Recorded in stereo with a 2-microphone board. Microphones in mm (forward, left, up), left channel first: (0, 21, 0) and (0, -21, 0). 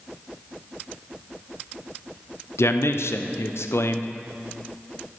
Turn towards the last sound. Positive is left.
turn(degrees=80)